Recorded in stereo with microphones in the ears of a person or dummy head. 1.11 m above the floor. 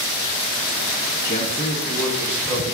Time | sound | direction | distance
1.2 | a man speaking | 40° left (ahead or behind) | 0.5 m